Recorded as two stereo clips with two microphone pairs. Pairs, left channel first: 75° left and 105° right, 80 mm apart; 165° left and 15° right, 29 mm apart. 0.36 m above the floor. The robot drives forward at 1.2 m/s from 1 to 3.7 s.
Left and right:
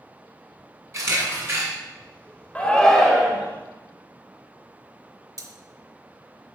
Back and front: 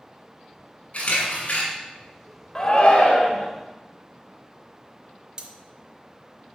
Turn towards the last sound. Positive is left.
turn(degrees=-75)